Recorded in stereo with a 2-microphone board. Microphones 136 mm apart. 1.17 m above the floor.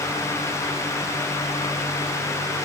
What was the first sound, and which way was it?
Only background noise.